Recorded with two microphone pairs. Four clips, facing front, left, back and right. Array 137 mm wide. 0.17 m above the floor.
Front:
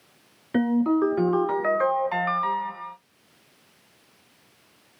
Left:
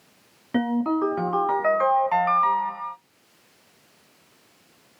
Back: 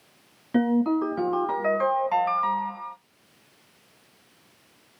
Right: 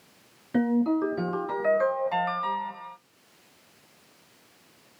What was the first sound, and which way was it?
A ringtone, 100° left.